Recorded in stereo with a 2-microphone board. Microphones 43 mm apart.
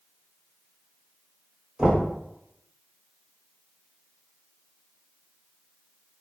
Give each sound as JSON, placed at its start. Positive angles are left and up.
{"t": 1.8, "sound": "knocking", "side_deg": -20, "distance_m": 1.4}